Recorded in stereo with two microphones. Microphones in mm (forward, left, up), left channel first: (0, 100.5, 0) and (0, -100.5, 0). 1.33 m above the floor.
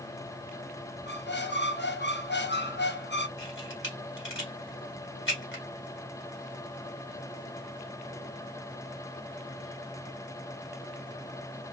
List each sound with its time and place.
1.1 s a squeak: 60° left (ahead or behind), 0.6 m
3.4 s a camera shutter: 75° left (ahead or behind), 2 m